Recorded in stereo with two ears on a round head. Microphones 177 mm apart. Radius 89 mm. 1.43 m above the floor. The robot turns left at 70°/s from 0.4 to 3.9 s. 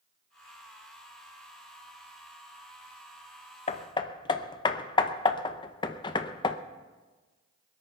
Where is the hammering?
30° left (ahead or behind), 0.6 m; by 6.6 s 25° left (ahead or behind), 0.6 m.